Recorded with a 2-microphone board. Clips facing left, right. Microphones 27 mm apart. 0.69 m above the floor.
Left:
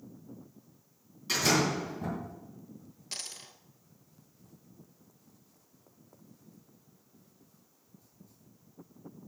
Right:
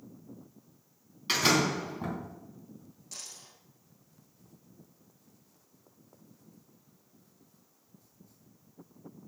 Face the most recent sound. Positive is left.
turn(degrees=70)  # may be behind; listen again after turning